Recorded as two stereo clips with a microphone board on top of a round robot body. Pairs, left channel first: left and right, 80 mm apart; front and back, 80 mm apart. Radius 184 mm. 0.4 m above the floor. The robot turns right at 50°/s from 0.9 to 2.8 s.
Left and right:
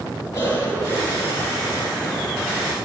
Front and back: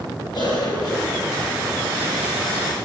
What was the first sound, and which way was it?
A cough, 35° left.